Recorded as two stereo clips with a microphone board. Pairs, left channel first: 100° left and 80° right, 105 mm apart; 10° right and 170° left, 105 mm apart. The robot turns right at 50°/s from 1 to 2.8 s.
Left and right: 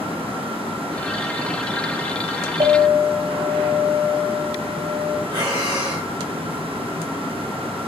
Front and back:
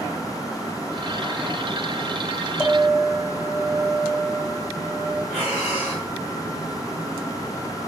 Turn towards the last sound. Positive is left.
turn(degrees=-110)